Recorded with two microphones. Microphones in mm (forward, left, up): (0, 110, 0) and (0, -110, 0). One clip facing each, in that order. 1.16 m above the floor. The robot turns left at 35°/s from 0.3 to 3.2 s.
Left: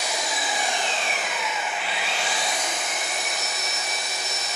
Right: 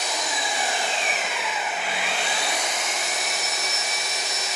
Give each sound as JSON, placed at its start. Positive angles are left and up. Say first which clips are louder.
{"t": 0.0, "sound": "an engine running", "louder": "even", "azimuth_deg": 10, "distance_m": 1.2}